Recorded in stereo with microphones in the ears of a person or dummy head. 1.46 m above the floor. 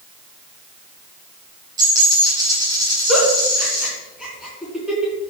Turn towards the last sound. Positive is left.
turn(degrees=0)  # may be behind; listen again after turning